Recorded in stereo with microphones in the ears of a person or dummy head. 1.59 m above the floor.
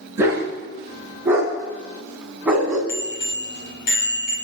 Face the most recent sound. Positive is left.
turn(degrees=60)  # may be behind; listen again after turning